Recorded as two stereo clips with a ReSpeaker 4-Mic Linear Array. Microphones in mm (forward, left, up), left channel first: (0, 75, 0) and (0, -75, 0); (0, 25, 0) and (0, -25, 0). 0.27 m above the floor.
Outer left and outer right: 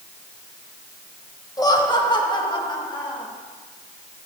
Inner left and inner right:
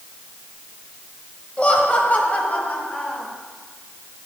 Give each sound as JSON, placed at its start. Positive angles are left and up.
{"t": 1.6, "sound": "laughter", "side_deg": 25, "distance_m": 1.5}